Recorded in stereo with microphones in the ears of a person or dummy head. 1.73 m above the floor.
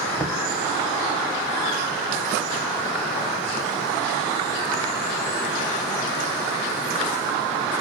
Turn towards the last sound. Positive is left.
turn(degrees=5)  # may be behind; listen again after turning